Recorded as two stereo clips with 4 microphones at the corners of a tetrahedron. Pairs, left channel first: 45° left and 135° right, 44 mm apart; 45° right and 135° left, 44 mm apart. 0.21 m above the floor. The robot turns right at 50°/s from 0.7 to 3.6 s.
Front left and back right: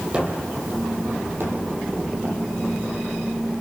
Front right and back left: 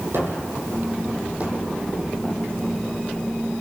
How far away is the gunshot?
About 4.5 m.